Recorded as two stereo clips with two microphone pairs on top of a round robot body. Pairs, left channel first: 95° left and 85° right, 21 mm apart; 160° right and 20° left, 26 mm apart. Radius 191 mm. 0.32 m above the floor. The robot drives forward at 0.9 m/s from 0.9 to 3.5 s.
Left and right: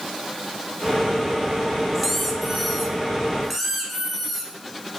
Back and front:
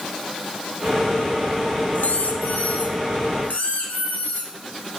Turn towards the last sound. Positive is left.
turn(degrees=180)